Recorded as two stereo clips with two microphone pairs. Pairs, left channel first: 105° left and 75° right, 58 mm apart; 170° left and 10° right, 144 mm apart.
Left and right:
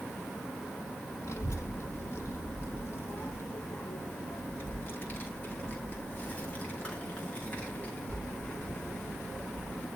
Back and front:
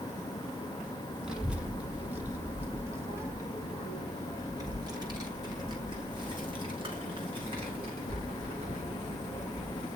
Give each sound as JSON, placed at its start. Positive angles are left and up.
{"t": 1.2, "sound": "a child speaking", "azimuth_deg": 80, "distance_m": 3.0}